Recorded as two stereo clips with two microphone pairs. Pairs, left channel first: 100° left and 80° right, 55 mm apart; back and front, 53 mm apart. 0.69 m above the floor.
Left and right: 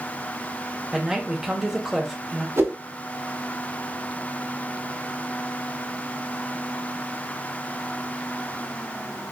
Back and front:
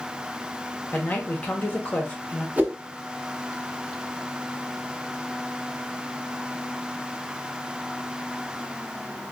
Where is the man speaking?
160° right, 1.0 m.